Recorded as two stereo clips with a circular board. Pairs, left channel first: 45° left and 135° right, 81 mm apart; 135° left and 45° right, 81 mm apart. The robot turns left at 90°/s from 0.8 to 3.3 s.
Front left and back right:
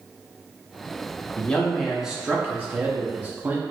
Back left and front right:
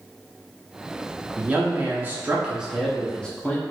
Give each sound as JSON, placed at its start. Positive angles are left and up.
{"t": 1.4, "sound": "a man speaking", "azimuth_deg": 0, "distance_m": 0.5}